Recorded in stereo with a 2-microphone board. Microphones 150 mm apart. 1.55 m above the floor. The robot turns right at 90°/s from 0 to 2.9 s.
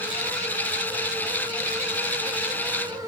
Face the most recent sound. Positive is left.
No sound to turn to.